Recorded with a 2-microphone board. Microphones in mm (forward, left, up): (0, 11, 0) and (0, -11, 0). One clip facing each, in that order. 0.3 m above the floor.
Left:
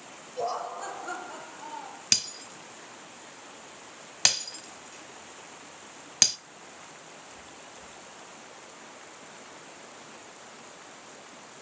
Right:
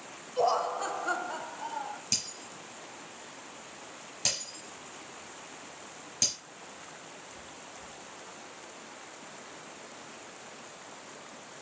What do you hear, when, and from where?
0.4 s laughter: 30° right (ahead or behind), 0.9 m; by 2.0 s 25° right (ahead or behind), 1.5 m
2.1 s breaking glass: 55° left (ahead or behind), 1.1 m